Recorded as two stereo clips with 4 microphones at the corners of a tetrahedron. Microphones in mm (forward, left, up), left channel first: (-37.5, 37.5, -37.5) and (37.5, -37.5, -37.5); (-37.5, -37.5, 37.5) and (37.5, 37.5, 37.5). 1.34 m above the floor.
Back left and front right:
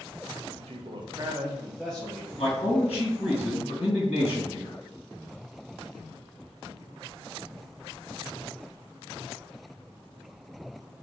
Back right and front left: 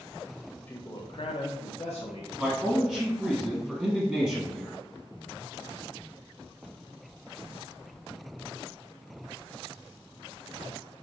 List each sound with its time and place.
0.6 s a man speaking: 55° right, 0.5 m; by 2.3 s 150° right, 1.0 m
2.4 s a man speaking: 130° left, 1.7 m